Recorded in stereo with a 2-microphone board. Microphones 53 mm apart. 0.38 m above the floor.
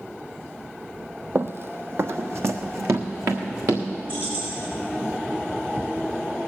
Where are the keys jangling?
35° right (ahead or behind), 6.5 m.